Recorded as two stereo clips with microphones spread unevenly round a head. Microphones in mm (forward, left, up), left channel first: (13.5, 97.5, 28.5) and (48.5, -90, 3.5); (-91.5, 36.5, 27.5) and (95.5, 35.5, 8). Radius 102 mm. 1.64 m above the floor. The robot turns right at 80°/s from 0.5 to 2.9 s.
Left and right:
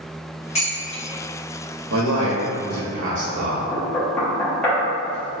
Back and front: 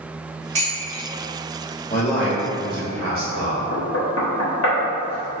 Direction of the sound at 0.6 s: 55° left.